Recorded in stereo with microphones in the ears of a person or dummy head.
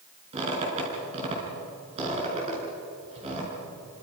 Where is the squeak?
35° right (ahead or behind), 7 m.